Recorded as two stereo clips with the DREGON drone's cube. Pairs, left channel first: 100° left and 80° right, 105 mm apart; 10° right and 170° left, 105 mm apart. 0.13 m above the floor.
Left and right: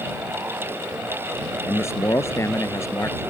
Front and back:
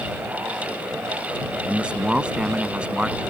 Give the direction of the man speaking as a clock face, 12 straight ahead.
9 o'clock.